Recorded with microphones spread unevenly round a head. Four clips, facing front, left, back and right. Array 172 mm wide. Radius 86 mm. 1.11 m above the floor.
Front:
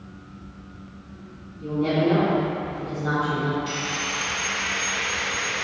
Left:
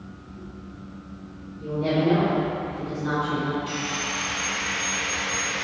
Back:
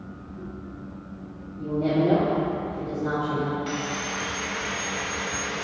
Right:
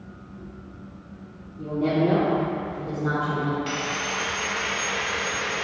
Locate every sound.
1.6 s a woman speaking: 120° right, 3 m; by 3.6 s 130° right, 4.5 m
3.7 s sawing: 100° right, 0.8 m